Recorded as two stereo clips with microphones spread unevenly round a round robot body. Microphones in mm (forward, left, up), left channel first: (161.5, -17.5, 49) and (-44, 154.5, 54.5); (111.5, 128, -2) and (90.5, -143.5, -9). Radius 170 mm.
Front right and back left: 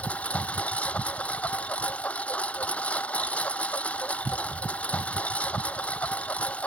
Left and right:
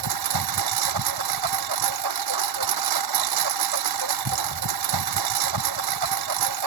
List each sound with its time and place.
0.0 s a lawn mower: 125° right